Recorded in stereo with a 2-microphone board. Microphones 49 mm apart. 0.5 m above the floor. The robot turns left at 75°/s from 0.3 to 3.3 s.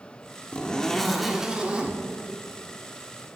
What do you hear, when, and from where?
0.5 s a zipper: 20° left (ahead or behind), 1.5 m; by 2.0 s 25° right (ahead or behind), 1.5 m